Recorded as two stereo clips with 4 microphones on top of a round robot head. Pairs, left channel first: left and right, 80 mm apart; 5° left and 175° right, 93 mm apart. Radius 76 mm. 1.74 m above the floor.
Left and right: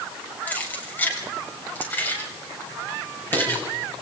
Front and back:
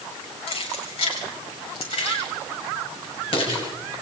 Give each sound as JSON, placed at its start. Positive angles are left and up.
{"t": 0.5, "sound": "keys jangling", "azimuth_deg": 20, "distance_m": 7.0}